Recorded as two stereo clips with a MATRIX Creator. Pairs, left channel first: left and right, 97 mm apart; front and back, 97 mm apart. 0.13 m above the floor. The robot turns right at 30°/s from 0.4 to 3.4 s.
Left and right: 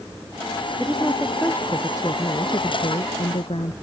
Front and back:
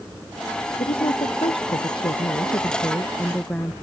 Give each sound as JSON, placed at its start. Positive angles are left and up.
{"t": 0.8, "sound": "a woman speaking", "azimuth_deg": 0}